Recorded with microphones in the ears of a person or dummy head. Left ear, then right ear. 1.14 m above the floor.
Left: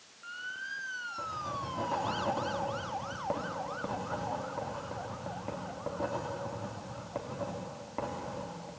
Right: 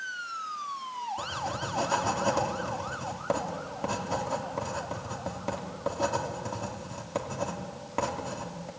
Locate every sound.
1.2 s writing: 80° right, 3 m